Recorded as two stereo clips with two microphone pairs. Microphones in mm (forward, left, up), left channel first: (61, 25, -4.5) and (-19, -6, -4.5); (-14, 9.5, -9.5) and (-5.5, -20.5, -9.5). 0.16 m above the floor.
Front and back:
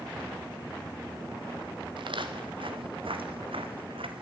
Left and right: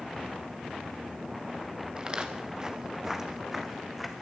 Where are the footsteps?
135° right, 3.5 m; by 4.2 s 165° right, 3.5 m.